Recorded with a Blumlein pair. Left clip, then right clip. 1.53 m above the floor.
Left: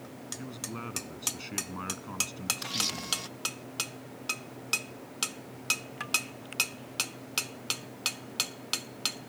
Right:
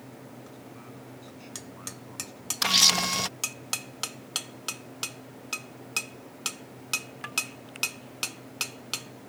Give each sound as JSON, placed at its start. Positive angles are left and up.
{"t": 0.4, "sound": "a man speaking", "azimuth_deg": 60}
{"t": 2.6, "sound": "a camera shutter", "azimuth_deg": -55}